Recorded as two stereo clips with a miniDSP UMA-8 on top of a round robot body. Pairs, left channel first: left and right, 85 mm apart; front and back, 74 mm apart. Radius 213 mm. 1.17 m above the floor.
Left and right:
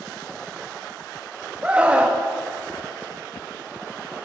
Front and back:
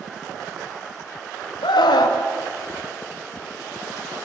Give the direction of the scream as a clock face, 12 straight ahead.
12 o'clock.